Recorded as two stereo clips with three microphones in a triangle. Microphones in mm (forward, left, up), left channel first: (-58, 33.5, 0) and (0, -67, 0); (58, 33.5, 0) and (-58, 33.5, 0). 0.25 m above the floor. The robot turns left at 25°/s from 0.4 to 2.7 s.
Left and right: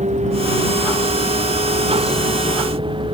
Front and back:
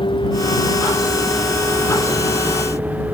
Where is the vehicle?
45° right; by 3.1 s 105° right.